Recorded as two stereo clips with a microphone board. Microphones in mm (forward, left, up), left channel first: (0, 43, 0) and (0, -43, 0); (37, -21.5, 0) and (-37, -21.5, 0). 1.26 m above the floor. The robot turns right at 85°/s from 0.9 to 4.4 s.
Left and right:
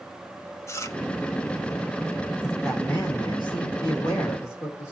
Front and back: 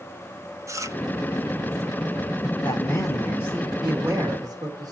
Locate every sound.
0.7 s chewing: 140° left, 1.0 m; by 1.0 s 145° left, 1.0 m
2.6 s a man speaking: 15° right, 3 m; by 4.9 s 140° left, 3 m